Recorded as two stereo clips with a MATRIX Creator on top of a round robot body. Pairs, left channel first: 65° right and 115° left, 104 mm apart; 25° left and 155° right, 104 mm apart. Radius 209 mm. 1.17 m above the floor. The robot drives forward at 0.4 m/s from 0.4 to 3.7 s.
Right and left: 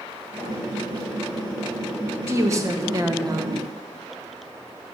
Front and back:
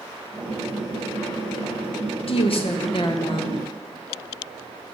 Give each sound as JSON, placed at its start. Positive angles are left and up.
{"t": 2.2, "sound": "a woman speaking", "azimuth_deg": 50, "distance_m": 2.5}